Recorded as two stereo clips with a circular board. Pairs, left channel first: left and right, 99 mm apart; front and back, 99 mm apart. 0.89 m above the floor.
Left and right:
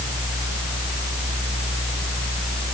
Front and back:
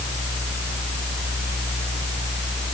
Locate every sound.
Only background noise.